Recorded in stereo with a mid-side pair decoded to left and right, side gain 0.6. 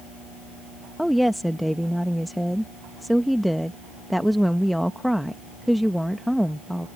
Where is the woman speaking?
Straight ahead.